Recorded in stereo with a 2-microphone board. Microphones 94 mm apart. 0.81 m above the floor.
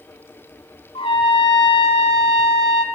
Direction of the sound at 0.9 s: 80° left.